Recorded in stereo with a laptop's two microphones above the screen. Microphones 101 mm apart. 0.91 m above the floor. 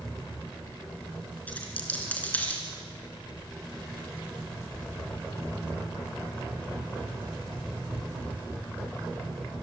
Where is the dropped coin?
15° left (ahead or behind), 3 m.